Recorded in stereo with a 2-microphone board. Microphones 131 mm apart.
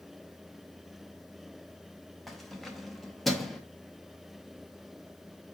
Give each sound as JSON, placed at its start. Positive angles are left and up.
{"t": 2.3, "sound": "keys jangling", "side_deg": 0, "distance_m": 0.6}